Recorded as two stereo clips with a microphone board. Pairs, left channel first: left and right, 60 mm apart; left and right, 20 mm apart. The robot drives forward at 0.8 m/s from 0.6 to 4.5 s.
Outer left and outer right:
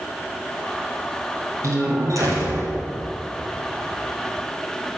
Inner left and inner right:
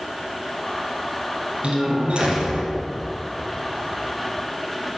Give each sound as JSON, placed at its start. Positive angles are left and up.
{"t": 1.6, "sound": "a door slam", "side_deg": -60, "distance_m": 3.5}